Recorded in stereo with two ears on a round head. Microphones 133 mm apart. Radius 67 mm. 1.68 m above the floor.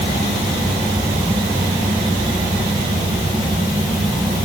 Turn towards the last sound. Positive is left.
No sound to turn to.